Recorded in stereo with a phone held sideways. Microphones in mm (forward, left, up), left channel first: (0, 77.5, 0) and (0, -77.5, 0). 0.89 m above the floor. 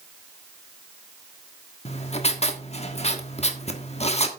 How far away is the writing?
About 1.3 m.